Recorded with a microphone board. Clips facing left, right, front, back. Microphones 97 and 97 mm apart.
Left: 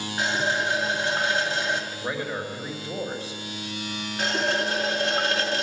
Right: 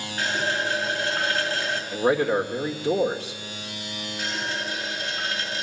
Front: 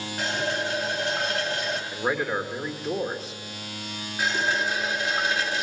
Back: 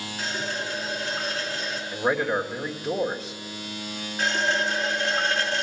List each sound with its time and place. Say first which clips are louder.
0.2 s a running tap: left 1 dB, front 4 dB; 15° left, 2.5 m
1.9 s a man speaking: right 9 dB, back 4 dB; 90° right, 1.7 m
4.2 s a running tap: left 6 dB, back 1 dB; 80° left, 1.4 m